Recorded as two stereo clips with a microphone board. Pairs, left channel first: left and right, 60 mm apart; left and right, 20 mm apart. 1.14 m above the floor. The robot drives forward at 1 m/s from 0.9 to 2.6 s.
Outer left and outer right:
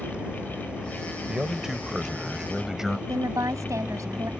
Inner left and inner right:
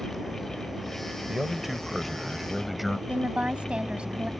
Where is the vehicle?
20° right (ahead or behind).